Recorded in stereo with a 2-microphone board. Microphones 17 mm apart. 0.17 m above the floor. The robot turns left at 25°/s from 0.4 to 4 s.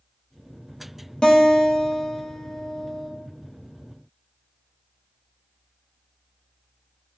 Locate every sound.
1.2 s a guitar: 55° left, 0.6 m; by 3.1 s 10° left, 0.6 m